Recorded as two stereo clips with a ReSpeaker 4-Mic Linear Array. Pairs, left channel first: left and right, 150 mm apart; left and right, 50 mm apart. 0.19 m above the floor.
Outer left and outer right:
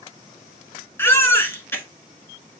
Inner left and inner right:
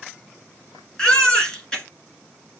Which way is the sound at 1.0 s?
15° left (ahead or behind).